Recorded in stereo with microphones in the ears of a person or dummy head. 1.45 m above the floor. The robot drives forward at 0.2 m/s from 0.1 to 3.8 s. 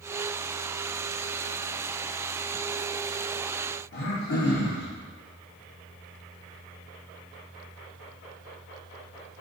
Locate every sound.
3.9 s throat clearing: 55° left (ahead or behind), 0.8 m